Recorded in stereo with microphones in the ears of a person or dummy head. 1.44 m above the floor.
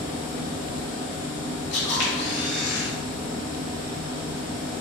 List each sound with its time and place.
0.0 s a machine running: 45° left (ahead or behind), 1.4 m
1.7 s a camera shutter: 70° left (ahead or behind), 1.0 m